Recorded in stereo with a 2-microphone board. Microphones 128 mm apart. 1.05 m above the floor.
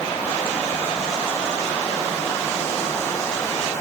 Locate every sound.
Only background noise.